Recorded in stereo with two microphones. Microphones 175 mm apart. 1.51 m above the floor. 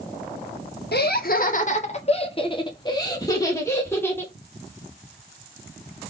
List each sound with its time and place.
0.9 s laughter: 65° left (ahead or behind), 0.9 m; by 4.3 s 10° left (ahead or behind), 2 m